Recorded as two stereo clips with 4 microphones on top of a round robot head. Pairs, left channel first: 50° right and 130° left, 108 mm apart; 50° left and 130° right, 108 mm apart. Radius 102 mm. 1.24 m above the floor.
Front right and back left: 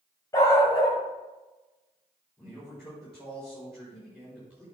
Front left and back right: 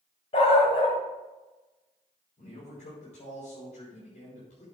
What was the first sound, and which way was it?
A dog barking, 10° left.